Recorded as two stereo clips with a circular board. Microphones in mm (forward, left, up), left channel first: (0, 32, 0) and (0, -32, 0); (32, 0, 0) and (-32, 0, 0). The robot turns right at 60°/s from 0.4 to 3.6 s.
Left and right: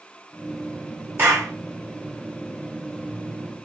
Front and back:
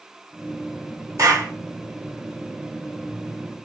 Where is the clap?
145° right, 3 m; by 1.5 s 125° right, 3 m.